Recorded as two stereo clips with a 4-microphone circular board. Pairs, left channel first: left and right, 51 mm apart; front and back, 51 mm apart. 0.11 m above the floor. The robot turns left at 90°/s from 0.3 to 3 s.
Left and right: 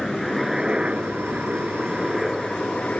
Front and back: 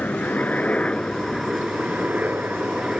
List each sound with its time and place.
0.0 s a helicopter: 5° left; by 3.0 s 120° left